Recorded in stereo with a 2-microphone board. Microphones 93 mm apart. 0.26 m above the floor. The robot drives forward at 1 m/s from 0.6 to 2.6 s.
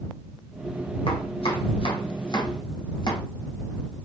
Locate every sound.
1.1 s chopping: 85° left, 1.8 m; by 3.2 s 55° left (ahead or behind), 2.5 m